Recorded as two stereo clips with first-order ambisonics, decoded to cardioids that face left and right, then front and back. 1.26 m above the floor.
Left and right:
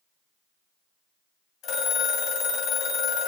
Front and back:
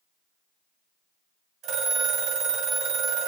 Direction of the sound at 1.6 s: 140° left.